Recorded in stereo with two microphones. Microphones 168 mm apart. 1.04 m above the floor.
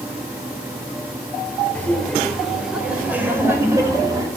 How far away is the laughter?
About 4.5 m.